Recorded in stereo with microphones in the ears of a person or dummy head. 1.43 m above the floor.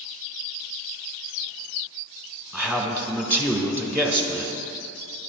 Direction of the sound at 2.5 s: 15° right (ahead or behind).